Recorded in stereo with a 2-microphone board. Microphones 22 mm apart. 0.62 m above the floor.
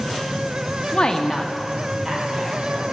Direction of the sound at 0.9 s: 40° left (ahead or behind).